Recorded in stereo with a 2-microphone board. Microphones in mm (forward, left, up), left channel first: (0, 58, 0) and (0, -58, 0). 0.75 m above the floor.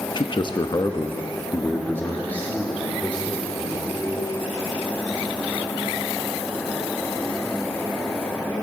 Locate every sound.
0.1 s a man speaking: 40° left (ahead or behind), 0.6 m; by 4.3 s 10° left (ahead or behind), 2.5 m